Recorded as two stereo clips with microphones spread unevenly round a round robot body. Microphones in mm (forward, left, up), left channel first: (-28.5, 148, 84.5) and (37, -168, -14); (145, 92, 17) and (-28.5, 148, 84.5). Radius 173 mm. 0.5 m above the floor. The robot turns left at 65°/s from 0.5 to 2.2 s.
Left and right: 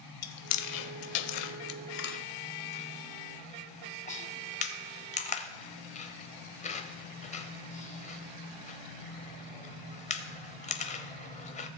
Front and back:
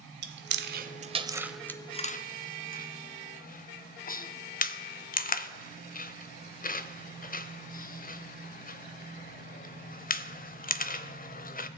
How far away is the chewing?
About 0.7 m.